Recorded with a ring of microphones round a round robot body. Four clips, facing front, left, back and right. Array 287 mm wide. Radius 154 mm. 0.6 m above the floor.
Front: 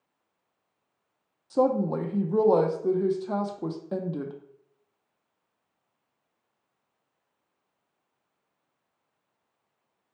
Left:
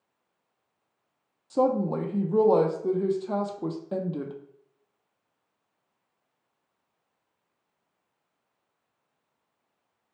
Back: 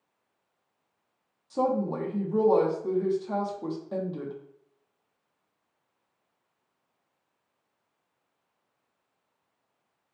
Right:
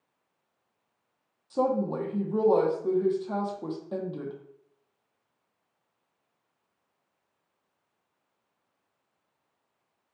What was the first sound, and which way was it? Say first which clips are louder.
A woman speaking: left 2 dB, front 3 dB; 40° left.